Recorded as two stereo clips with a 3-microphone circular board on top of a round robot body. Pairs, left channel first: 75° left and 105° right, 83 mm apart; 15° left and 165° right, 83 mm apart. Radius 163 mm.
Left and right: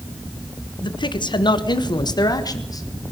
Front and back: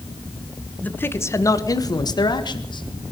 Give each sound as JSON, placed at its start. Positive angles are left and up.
{"t": 0.8, "sound": "a man speaking", "azimuth_deg": 85, "distance_m": 1.5}